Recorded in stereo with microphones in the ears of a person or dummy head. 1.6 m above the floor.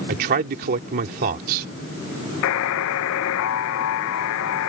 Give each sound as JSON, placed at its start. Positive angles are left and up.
{"t": 0.1, "sound": "a man speaking", "side_deg": -50}
{"t": 2.4, "sound": "a buzzer", "side_deg": 60}